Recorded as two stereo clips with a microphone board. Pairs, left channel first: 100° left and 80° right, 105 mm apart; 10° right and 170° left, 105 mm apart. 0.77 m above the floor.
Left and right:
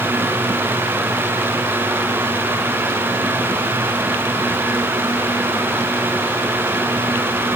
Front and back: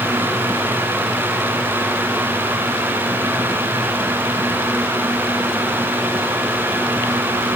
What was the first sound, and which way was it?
Only background noise.